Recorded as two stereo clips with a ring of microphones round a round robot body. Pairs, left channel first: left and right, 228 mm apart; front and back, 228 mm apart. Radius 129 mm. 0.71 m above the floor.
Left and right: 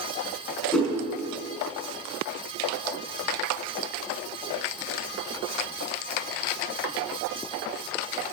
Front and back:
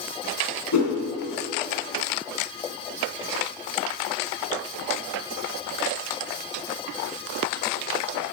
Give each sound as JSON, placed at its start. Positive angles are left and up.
{"t": 0.7, "sound": "a whoosh", "azimuth_deg": 0, "distance_m": 4.0}